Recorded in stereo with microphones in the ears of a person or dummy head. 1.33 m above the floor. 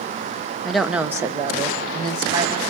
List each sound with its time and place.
0.6 s a woman speaking: 5° right (ahead or behind), 0.6 m; by 2.7 s 35° right (ahead or behind), 1.8 m